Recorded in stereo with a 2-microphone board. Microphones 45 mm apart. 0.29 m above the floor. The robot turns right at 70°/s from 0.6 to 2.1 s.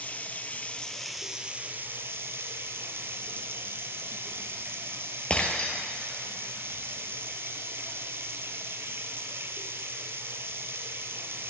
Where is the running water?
145° left, 0.8 m; by 11.5 s 110° right, 0.8 m.